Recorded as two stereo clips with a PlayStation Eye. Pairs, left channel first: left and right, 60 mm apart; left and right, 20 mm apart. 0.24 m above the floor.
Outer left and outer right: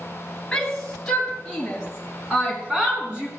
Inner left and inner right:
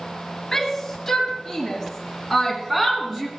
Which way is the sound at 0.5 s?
10° left (ahead or behind).